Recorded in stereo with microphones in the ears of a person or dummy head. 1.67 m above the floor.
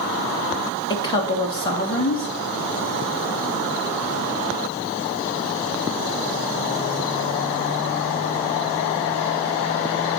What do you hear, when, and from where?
0.9 s a woman speaking: 25° left (ahead or behind), 1.5 m